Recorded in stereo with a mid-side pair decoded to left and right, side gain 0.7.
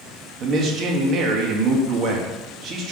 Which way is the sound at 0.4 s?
45° right.